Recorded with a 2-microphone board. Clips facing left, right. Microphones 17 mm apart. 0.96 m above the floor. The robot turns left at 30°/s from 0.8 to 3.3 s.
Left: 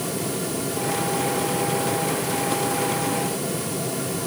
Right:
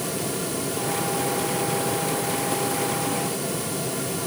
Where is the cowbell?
I don't hear a cowbell.